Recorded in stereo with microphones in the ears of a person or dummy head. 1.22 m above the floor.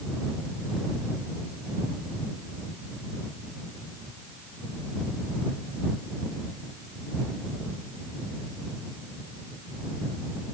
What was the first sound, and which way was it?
Only background noise.